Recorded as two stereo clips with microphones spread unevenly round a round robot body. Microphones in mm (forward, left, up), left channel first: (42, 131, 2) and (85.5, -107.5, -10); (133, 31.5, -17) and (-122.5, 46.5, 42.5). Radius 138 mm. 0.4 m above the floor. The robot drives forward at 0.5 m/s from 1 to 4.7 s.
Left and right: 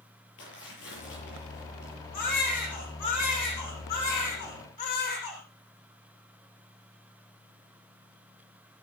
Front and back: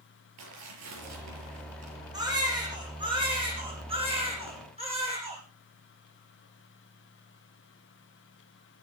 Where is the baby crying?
100° left, 9 m; by 5.4 s 110° left, 9.5 m.